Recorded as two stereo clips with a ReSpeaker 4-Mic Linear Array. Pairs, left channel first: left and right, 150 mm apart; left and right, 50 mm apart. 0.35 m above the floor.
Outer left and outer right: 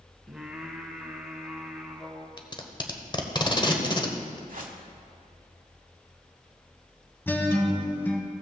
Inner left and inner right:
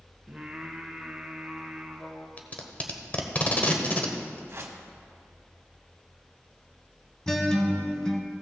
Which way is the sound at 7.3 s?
15° left (ahead or behind).